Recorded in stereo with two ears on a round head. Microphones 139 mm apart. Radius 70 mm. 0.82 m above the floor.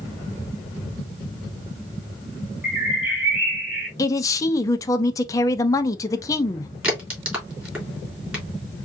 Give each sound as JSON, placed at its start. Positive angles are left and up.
{"t": 2.6, "sound": "a bird", "side_deg": -10, "distance_m": 1.7}
{"t": 4.0, "sound": "a man speaking", "side_deg": 20, "distance_m": 0.6}
{"t": 6.8, "sound": "a crack", "side_deg": -10, "distance_m": 2.5}